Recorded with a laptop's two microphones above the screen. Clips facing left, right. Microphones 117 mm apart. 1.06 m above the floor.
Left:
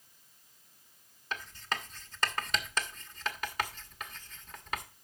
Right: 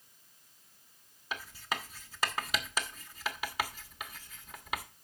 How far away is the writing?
About 1.3 m.